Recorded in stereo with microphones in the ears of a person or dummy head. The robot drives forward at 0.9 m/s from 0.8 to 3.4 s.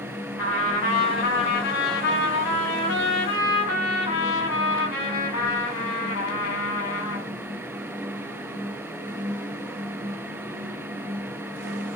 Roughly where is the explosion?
I don't hear an explosion.